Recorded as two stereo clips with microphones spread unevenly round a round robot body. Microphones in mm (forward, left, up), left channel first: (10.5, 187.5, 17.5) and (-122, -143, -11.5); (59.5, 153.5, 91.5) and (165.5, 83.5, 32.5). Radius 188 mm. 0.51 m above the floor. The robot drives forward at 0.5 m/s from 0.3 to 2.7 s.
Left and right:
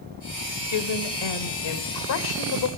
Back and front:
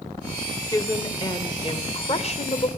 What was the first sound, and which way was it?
A woman speaking, 70° left.